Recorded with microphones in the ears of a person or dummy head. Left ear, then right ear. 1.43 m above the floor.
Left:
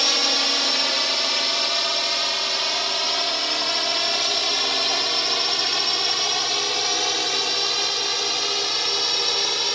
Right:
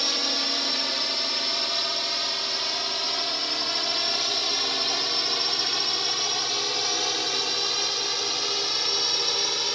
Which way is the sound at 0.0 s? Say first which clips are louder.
Left 5 dB; 30° left (ahead or behind).